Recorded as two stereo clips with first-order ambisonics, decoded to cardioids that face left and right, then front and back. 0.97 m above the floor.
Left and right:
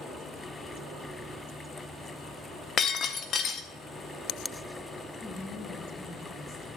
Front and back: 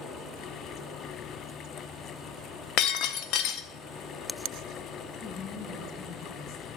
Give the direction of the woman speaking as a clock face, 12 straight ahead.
11 o'clock.